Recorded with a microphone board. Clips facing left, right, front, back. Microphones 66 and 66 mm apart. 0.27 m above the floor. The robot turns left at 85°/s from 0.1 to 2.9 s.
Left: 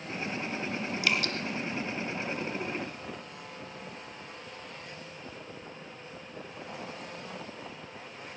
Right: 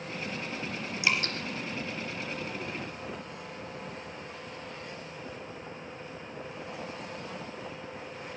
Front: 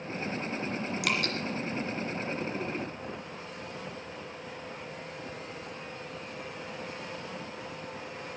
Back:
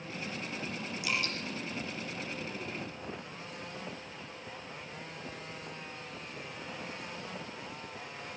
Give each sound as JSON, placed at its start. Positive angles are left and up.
{"t": 1.0, "sound": "dripping", "azimuth_deg": -15, "distance_m": 2.5}